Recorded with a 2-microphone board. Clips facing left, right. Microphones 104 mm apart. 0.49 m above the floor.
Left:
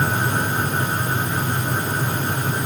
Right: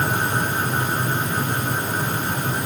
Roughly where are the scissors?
I don't hear scissors.